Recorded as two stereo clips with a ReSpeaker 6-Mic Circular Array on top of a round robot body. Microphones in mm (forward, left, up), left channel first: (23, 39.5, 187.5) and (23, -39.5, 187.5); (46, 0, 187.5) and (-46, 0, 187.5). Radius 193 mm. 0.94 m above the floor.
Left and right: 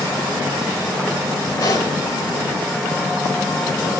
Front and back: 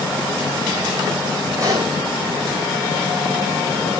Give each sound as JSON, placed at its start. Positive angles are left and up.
{"t": 1.6, "sound": "a pop", "azimuth_deg": 125, "distance_m": 7.5}